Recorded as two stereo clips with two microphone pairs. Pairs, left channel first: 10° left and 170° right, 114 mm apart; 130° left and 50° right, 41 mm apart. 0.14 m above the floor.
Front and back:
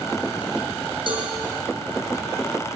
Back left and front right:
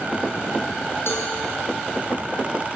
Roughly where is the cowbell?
Behind left.